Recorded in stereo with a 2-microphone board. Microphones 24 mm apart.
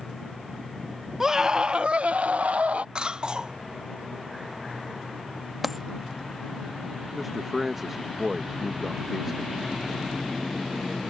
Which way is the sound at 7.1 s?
15° right (ahead or behind).